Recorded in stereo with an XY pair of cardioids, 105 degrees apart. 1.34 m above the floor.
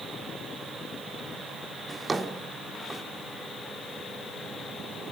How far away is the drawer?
About 2.5 m.